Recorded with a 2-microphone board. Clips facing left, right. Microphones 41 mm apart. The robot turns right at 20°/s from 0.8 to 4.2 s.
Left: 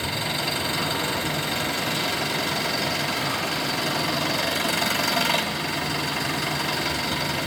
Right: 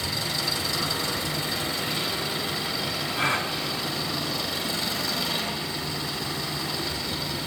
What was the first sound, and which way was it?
An engine running, 40° left.